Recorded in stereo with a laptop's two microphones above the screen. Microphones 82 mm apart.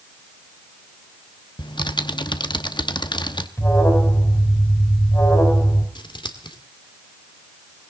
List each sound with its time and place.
1.6 s typing on a keyboard: 65° left (ahead or behind), 0.9 m
3.6 s an alarm: 30° left (ahead or behind), 4 m
6.0 s scissors: 70° left (ahead or behind), 1.8 m